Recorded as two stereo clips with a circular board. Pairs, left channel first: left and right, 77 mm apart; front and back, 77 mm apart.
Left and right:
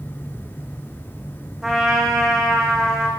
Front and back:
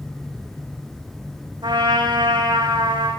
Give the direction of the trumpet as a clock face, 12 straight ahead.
6 o'clock.